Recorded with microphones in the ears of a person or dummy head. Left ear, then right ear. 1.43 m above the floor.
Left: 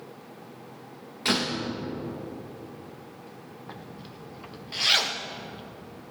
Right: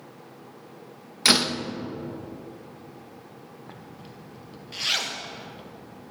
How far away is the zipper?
About 0.8 m.